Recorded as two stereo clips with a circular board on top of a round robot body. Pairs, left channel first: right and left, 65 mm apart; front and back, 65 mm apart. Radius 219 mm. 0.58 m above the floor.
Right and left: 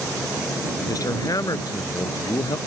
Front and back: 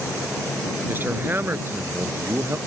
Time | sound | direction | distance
0.9 | a man speaking | 120° right | ?